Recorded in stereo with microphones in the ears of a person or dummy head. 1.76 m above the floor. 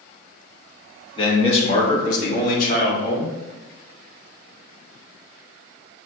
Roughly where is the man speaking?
Left.